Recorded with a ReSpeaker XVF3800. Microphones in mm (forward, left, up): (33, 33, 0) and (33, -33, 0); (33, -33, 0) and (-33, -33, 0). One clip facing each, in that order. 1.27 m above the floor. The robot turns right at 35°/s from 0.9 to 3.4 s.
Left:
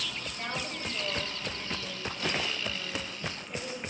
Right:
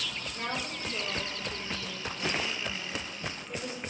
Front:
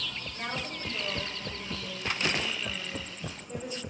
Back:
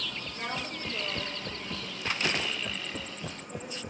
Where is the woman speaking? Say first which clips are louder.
Right 2 dB, even; 115° right, 4.5 m; by 3.8 s 30° right, 4.5 m.